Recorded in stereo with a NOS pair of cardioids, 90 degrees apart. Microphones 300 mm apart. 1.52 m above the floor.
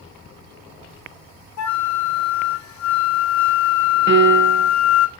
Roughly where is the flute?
Left.